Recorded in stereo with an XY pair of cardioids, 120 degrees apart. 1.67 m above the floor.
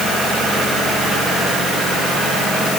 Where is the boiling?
No boiling in this recording.